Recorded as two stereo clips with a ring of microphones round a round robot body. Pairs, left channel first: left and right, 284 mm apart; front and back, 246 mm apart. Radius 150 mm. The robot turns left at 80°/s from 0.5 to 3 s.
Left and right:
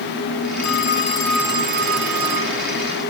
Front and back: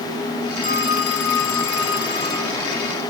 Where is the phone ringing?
55° left; by 2.6 s 95° right.